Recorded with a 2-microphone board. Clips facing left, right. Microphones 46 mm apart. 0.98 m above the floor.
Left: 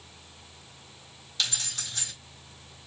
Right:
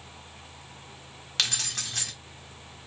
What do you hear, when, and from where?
1.4 s keys jangling: 80° right, 1.5 m